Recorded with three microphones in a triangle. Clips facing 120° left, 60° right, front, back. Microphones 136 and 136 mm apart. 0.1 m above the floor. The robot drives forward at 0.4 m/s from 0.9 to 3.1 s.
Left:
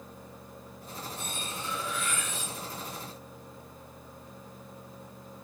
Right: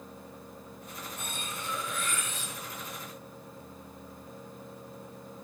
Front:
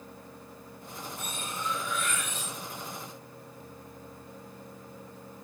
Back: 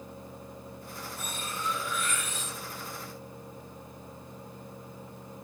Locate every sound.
1.2 s cutlery clinking: 90° right, 8.5 m; by 2.5 s 95° right, 8.5 m